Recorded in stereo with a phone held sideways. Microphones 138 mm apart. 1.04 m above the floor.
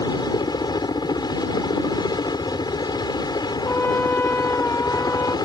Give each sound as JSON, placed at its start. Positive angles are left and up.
{"t": 0.0, "sound": "a helicopter", "side_deg": 30}
{"t": 3.6, "sound": "a trumpet", "side_deg": 15}